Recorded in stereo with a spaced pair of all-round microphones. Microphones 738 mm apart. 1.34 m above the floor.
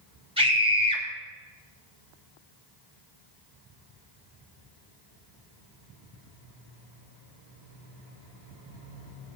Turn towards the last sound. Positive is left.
turn(degrees=-5)  # may be behind; listen again after turning